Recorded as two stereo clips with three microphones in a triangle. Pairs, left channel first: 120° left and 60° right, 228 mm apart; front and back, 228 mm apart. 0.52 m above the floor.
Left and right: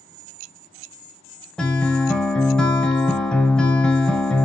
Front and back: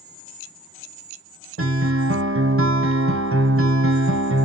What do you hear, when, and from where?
1.6 s a guitar: 155° right, 0.6 m